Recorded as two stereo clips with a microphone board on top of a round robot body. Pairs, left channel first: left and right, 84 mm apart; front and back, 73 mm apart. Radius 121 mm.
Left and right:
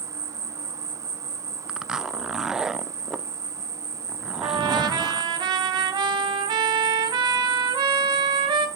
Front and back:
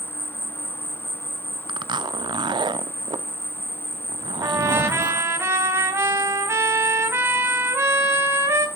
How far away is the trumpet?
About 2.5 m.